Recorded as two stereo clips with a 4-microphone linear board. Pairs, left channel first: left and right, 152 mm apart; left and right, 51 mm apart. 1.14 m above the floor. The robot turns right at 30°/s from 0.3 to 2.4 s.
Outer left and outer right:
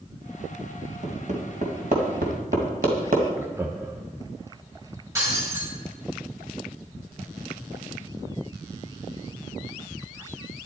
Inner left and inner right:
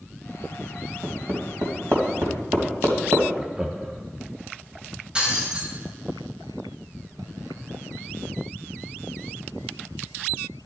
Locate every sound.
1.0 s hammering: 45° right (ahead or behind), 2 m; by 3.2 s 70° right (ahead or behind), 2 m
3.4 s laughter: 15° right (ahead or behind), 0.7 m
5.2 s breaking glass: 20° right (ahead or behind), 6 m